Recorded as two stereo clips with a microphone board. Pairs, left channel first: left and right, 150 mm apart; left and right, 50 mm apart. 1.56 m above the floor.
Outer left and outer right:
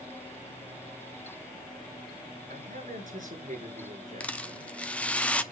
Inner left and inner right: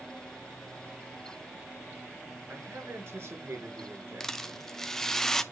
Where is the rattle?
10° left (ahead or behind), 0.6 m.